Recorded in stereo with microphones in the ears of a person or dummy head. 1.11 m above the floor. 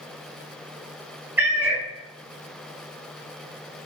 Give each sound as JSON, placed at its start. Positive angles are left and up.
{"t": 1.4, "sound": "a cat meowing", "side_deg": -15, "distance_m": 1.5}